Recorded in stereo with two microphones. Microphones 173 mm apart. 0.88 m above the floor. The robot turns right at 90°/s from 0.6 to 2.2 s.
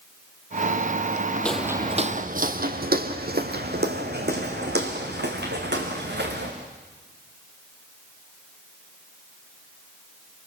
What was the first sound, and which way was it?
Footsteps, 10° left (ahead or behind).